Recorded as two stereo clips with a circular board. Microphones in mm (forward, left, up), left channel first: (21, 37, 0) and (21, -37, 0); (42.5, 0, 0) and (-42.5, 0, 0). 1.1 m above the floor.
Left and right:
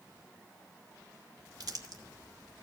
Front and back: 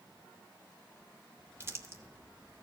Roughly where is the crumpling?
Behind right.